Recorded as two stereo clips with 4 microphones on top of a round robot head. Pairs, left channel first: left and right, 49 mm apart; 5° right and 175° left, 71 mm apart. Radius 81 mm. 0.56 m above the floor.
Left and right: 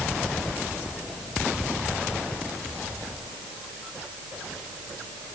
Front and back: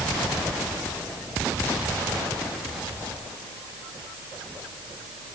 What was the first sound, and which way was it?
Only background noise.